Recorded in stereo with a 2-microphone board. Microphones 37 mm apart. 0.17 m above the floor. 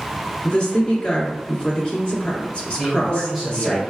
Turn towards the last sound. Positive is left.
turn(degrees=-5)  # may be behind; listen again after turning